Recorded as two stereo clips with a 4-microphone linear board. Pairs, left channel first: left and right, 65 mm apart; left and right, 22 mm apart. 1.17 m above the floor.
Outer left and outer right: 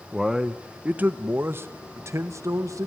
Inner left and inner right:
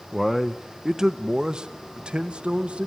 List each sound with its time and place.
0.1 s a man speaking: 5° right (ahead or behind), 1.2 m; by 2.9 s 50° right (ahead or behind), 1.9 m